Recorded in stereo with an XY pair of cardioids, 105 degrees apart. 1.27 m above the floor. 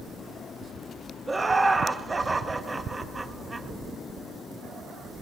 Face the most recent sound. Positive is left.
turn(degrees=-15)